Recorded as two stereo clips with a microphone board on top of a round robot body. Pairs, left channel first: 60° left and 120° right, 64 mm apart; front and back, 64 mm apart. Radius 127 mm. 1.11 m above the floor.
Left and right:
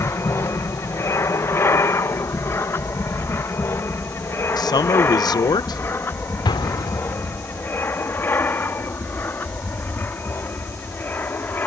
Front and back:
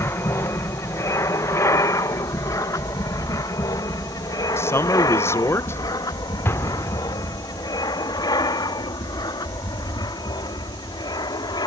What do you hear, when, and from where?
0.0 s an aircraft: 30° left; by 11.7 s 5° right
4.6 s a man speaking: 50° left
6.5 s an explosion: 55° left